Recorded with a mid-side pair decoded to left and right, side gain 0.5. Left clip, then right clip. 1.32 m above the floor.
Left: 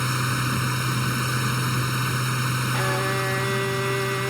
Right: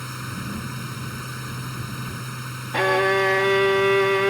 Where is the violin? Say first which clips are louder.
Right 9 dB; 50° right.